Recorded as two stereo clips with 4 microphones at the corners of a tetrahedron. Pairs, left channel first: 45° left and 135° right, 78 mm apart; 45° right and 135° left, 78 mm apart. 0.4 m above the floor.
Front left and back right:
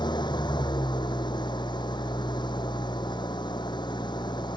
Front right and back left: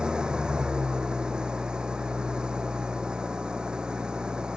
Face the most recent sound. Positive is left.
turn(degrees=55)